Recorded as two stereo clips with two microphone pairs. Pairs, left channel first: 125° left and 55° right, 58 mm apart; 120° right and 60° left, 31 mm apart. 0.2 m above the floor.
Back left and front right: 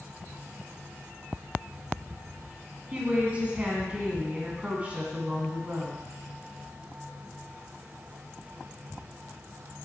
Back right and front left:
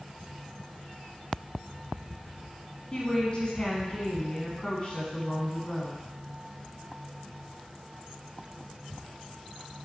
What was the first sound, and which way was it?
A woman speaking, 105° right.